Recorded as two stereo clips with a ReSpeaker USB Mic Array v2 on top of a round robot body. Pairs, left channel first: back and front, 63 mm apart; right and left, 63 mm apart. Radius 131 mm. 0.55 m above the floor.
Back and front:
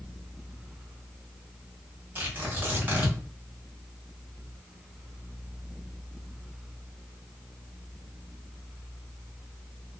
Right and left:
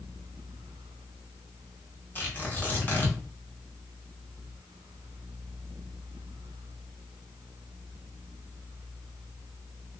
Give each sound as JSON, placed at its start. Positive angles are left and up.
{"t": 2.1, "sound": "tearing paper", "azimuth_deg": -45, "distance_m": 1.5}